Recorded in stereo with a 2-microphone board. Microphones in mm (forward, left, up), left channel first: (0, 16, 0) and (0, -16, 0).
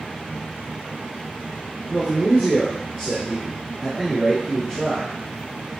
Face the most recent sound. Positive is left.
turn(degrees=5)  # may be behind; listen again after turning